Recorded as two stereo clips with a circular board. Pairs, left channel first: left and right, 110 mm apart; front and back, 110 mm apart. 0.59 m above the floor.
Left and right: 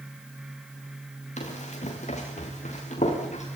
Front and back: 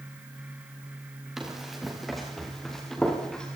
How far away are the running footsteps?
About 6.5 m.